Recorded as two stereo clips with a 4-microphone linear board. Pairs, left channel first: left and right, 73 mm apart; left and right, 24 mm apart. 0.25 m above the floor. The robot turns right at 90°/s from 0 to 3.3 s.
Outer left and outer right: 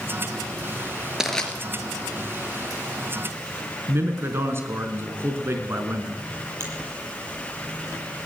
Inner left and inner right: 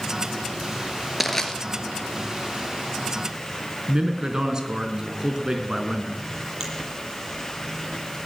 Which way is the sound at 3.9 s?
35° right (ahead or behind).